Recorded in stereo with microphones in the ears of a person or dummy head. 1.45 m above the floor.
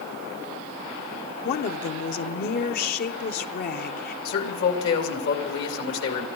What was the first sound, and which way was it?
A woman speaking, 55° left (ahead or behind).